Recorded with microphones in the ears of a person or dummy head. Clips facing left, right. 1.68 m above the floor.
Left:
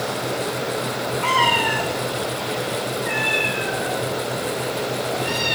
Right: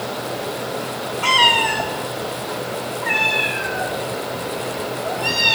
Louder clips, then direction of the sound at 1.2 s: Right 2 dB; 45° right (ahead or behind).